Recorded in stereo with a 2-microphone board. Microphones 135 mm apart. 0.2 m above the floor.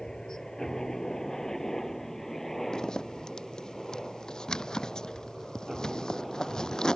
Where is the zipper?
5° left (ahead or behind).